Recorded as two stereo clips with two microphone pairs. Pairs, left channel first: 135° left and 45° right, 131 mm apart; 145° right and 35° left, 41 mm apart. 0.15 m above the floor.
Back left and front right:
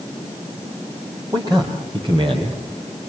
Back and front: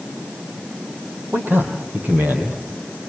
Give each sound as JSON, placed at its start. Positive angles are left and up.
{"t": 1.3, "sound": "a man speaking", "azimuth_deg": 5, "distance_m": 7.0}